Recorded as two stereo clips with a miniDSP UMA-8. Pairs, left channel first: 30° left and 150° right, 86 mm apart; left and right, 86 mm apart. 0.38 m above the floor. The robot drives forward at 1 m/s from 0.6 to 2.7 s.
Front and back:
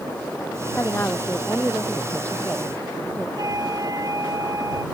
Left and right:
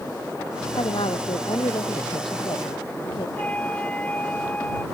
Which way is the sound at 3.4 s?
165° left.